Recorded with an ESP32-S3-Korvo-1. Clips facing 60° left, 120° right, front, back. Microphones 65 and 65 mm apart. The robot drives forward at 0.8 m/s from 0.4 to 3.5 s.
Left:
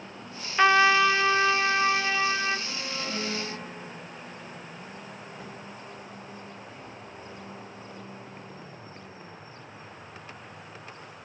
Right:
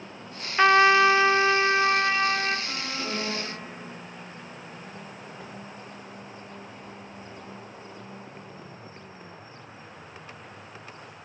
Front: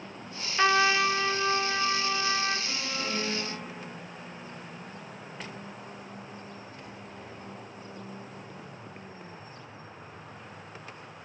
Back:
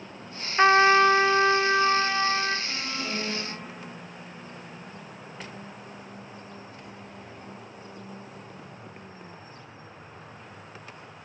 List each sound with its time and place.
0.6 s a trumpet: 160° left, 0.5 m; by 2.6 s 175° left, 1.9 m
2.7 s an alarm: 105° right, 2.5 m; by 4.0 s 115° right, 2.5 m